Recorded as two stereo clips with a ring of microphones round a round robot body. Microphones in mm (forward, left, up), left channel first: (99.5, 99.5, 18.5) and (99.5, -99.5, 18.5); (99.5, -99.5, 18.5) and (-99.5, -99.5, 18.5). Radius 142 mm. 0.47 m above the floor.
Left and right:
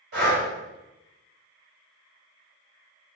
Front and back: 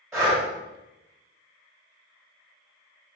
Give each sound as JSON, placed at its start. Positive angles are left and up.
{"t": 0.1, "sound": "breathing", "azimuth_deg": -105, "distance_m": 1.8}